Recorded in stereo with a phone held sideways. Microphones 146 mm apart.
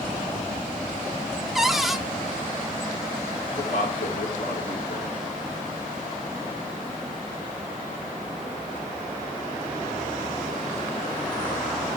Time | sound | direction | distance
1.6 | a cupboard door | centre (ahead or behind) | 0.5 m
3.5 | a man speaking | 60° left (ahead or behind) | 2.5 m